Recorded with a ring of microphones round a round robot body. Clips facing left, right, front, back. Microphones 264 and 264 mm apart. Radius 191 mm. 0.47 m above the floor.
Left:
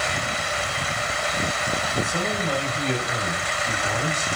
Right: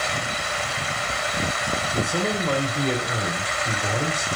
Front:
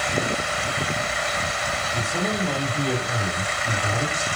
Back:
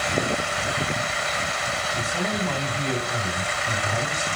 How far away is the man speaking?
About 1.9 m.